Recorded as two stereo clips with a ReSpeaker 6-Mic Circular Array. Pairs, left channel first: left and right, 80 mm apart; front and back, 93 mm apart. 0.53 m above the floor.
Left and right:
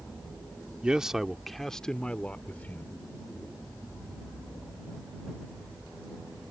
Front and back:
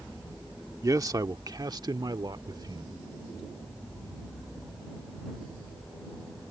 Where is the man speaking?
160° right; by 3.0 s 150° left.